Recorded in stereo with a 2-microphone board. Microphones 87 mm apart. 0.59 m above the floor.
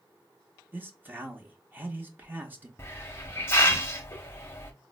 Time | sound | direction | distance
0.7 | a man speaking | 20° right (ahead or behind) | 0.6 m
2.8 | a hiss | 30° left (ahead or behind) | 0.7 m